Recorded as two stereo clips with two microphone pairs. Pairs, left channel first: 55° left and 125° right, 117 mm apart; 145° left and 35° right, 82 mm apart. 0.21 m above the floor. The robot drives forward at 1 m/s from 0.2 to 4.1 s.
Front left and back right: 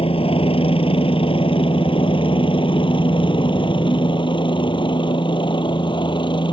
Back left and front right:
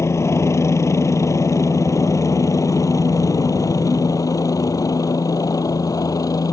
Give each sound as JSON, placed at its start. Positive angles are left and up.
{"t": 0.0, "sound": "a helicopter", "azimuth_deg": 90}